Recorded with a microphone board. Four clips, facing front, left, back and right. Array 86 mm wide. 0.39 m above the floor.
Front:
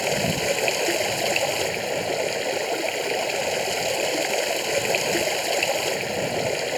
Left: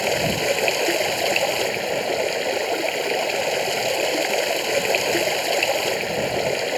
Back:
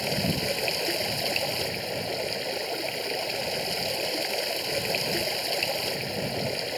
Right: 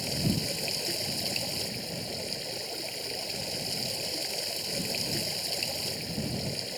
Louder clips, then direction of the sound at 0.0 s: Left 11 dB, front 5 dB; 65° left.